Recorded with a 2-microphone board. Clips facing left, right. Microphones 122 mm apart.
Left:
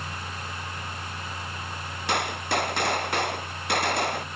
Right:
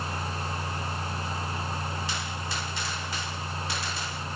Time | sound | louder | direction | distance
2.1 | a gunshot | left 7 dB | 60° left (ahead or behind) | ?